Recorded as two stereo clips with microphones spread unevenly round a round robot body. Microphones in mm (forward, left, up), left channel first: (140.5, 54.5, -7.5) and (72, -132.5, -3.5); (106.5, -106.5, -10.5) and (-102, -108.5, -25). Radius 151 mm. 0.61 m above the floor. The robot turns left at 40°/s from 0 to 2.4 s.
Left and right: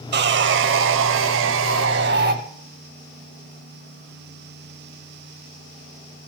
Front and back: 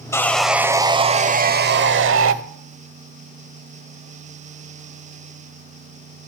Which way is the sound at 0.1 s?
75° right.